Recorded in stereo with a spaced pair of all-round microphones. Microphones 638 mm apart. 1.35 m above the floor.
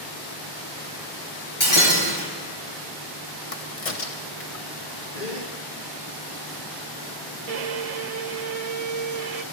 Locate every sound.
1.6 s breaking glass: 50° left (ahead or behind), 4 m
3.5 s a crack: 60° left (ahead or behind), 1.1 m
5.1 s a gasp: 90° left, 2 m
7.5 s a violin: 70° right (ahead or behind), 0.6 m